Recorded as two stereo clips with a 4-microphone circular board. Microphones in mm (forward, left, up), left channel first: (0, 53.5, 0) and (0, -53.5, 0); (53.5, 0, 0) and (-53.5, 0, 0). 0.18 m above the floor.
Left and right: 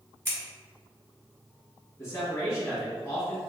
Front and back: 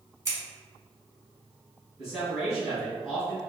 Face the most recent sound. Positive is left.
turn(degrees=105)